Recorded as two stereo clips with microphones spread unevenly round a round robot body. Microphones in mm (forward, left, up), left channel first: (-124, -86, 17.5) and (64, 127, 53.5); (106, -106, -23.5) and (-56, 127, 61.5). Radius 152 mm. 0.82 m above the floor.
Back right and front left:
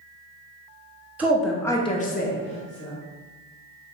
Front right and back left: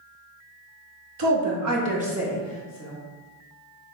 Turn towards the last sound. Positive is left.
turn(degrees=-90)